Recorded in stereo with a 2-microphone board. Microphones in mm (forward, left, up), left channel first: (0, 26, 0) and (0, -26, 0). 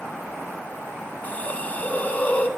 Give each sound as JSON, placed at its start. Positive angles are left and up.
{"t": 1.2, "sound": "a hiss", "side_deg": 30, "distance_m": 0.5}